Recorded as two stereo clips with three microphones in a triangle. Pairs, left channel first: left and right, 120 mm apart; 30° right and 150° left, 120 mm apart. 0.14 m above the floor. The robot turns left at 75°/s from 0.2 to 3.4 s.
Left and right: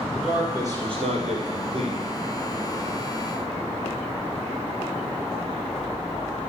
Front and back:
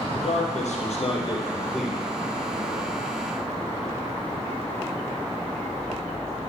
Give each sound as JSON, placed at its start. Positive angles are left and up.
{"t": 0.1, "sound": "a man speaking", "azimuth_deg": 0, "distance_m": 3.0}